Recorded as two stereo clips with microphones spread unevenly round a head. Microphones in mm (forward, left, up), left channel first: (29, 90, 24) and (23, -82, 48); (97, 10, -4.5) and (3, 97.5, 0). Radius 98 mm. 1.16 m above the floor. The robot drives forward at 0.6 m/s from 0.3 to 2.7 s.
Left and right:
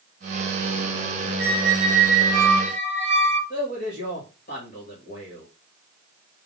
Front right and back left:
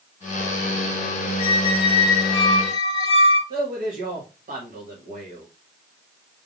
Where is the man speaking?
130° left, 2 m.